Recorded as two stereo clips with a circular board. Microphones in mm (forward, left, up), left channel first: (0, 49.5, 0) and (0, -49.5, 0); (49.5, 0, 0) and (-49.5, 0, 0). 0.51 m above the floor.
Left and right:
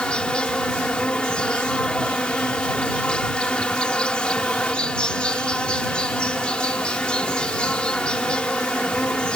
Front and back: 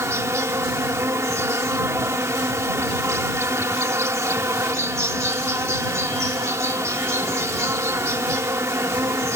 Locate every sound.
0.0 s an insect: 160° left